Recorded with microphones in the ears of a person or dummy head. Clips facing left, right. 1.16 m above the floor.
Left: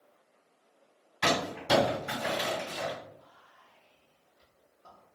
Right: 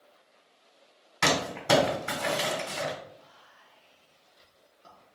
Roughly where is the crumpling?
Right.